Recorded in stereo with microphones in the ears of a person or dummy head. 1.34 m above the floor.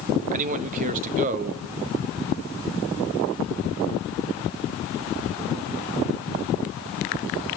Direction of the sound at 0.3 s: 45° right (ahead or behind).